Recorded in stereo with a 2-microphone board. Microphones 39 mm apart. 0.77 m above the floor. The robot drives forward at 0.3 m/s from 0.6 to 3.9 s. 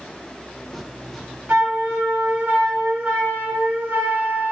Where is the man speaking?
No man speaking in this recording.